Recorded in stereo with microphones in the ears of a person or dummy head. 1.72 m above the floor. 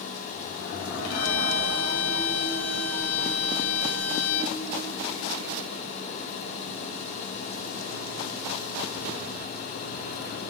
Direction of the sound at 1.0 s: 55° left (ahead or behind).